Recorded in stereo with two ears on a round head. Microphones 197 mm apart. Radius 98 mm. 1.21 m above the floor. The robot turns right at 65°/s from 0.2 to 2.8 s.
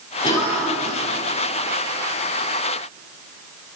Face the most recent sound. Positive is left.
turn(degrees=-35)